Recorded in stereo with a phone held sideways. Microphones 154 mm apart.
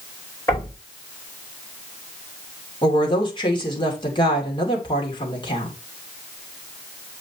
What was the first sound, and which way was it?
Knocking, 25° left (ahead or behind).